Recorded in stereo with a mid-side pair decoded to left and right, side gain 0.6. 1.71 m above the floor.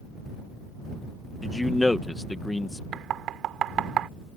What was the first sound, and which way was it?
A man speaking, 10° left.